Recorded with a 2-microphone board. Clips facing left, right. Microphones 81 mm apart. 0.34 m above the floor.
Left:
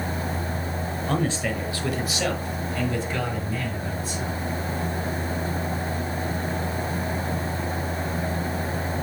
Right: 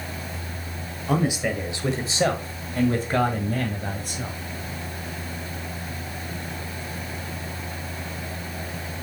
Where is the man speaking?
10° right (ahead or behind), 1.4 m; by 4.4 s 60° right (ahead or behind), 2 m.